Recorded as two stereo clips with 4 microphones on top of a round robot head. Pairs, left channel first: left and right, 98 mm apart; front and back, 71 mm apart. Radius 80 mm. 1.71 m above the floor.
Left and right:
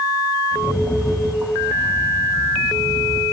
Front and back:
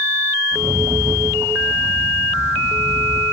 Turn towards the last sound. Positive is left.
turn(degrees=-170)